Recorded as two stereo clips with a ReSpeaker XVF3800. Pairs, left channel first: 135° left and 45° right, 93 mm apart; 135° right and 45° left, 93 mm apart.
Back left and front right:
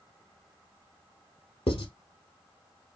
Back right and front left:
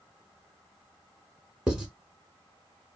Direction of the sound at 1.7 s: 130° left.